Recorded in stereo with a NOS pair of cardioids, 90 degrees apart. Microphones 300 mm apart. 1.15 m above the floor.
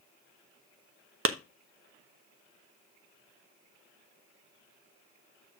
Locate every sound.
1.2 s a clap: 45° right, 1.0 m